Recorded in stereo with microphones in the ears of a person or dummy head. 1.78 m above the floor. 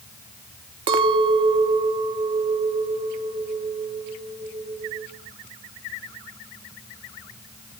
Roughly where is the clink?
Right.